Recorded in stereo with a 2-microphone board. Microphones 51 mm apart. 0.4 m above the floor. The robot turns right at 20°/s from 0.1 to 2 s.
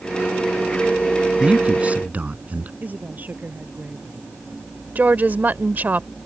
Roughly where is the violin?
I don't hear a violin.